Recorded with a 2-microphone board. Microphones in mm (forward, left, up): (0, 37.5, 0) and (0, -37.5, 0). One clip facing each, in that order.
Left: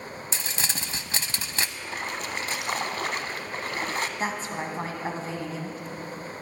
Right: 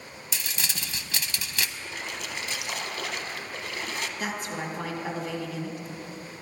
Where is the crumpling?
35° left (ahead or behind), 0.5 m.